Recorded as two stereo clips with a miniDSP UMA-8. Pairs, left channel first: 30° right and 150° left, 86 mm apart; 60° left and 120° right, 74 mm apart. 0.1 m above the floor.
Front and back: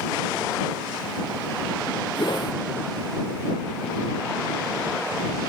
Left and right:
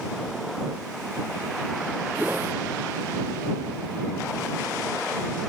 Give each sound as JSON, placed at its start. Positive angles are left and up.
{"t": 2.1, "sound": "a whoosh", "azimuth_deg": -55}